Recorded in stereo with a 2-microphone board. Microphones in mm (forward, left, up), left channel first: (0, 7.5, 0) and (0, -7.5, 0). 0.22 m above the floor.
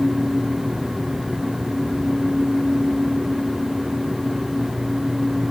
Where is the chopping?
No chopping in this recording.